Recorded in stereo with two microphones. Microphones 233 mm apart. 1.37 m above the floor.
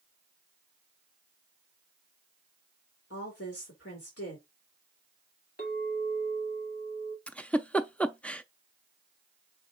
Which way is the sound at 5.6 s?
45° left (ahead or behind).